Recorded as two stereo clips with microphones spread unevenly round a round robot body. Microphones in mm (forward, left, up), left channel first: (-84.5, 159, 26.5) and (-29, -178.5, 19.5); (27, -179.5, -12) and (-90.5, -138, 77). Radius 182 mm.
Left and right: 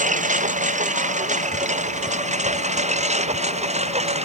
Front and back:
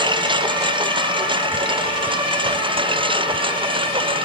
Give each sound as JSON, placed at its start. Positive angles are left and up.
{"t": 0.0, "sound": "a lawn mower", "azimuth_deg": -150}